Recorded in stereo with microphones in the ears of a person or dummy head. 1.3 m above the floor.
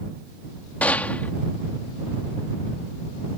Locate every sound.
0.8 s a gunshot: 10° left (ahead or behind)